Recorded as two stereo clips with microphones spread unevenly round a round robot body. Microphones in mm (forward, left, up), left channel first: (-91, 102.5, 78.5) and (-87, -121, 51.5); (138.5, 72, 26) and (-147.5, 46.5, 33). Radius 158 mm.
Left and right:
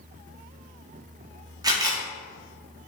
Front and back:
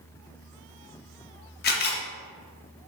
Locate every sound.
1.6 s a camera shutter: 30° right, 0.7 m